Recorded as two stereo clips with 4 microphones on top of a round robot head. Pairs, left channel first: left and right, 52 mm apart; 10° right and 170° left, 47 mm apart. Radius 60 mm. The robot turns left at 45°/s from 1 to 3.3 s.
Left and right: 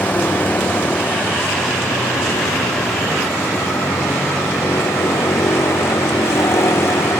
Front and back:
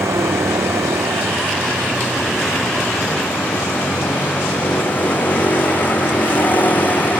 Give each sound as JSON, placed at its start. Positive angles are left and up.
{"t": 0.0, "sound": "a vehicle", "azimuth_deg": 150}